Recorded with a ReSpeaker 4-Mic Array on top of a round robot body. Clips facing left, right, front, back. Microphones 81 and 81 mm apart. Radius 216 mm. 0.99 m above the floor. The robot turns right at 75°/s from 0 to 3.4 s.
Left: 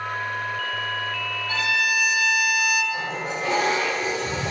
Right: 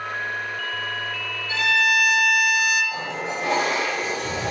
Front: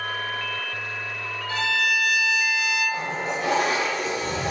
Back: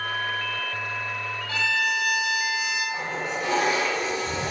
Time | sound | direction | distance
1.5 | a violin | 135° left | 1.2 m
2.9 | a toilet flushing | 85° right | 0.6 m